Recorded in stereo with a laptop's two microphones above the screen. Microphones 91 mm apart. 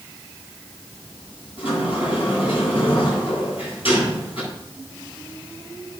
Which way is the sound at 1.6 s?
80° left.